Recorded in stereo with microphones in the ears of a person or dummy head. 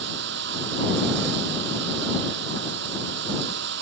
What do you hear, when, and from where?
0.0 s running water: 70° right (ahead or behind)